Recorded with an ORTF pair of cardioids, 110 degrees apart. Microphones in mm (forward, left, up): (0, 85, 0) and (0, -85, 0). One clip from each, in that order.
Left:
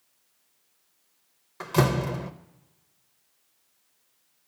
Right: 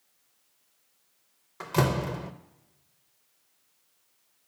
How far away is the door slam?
About 0.6 m.